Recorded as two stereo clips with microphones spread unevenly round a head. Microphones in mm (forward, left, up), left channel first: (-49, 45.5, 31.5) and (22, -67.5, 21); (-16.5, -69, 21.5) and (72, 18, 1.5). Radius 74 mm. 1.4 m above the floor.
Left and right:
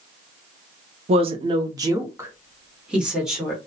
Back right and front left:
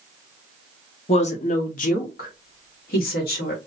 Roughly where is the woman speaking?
Right.